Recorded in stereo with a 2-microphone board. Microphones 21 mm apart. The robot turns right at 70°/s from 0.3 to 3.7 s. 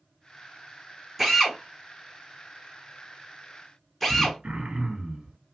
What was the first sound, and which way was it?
A drill, 5° right (ahead or behind).